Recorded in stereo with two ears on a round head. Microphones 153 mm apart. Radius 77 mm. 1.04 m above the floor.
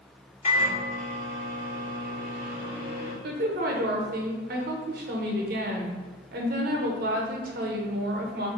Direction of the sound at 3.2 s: 60° right (ahead or behind).